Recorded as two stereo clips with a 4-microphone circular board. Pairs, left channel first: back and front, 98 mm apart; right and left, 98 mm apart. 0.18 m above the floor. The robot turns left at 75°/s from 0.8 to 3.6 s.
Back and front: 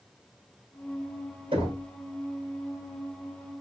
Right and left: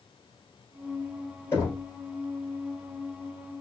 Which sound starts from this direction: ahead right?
Knocking, at 1.5 s.